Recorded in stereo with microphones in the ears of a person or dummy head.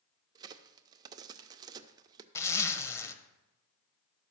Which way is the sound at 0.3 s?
25° right (ahead or behind).